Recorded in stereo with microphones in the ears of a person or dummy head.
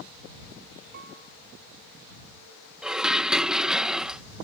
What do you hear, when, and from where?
0.9 s a piano: 65° right (ahead or behind)
2.8 s dishes clattering: 5° right (ahead or behind)